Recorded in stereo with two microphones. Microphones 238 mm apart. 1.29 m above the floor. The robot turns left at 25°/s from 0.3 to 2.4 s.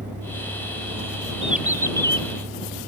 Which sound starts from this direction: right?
A vehicle, at 0.0 s.